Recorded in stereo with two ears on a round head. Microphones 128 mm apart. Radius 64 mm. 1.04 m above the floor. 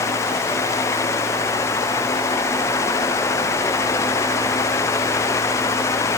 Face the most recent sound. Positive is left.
No sound to turn to.